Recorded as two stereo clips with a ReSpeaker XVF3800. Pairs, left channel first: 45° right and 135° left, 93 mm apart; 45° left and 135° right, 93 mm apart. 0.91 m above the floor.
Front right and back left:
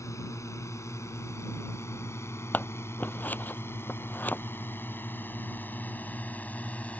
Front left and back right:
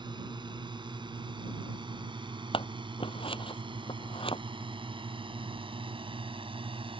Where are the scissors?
30° left.